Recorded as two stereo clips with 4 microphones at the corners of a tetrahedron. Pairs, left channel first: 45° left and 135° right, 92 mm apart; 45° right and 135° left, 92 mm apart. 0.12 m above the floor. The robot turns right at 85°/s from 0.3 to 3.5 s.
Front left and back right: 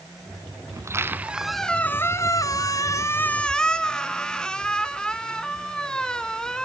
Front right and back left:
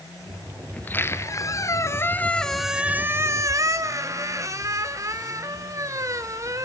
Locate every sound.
0.7 s a squeak: 110° right, 1.0 m; by 6.7 s 125° left, 1.0 m